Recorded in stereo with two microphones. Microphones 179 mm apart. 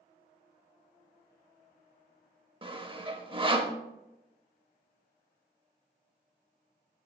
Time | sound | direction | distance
2.6 | sawing | 30° right (ahead or behind) | 0.7 m